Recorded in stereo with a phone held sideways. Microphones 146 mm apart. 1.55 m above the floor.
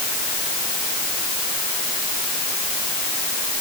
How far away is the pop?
I don't hear a pop.